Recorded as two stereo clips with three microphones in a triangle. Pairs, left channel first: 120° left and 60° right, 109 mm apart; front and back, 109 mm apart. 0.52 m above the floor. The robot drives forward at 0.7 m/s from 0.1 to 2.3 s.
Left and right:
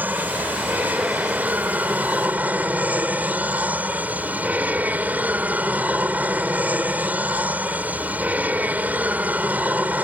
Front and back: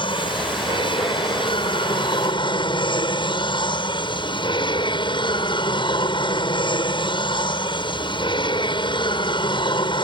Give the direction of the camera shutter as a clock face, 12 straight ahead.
No camera shutter in this recording.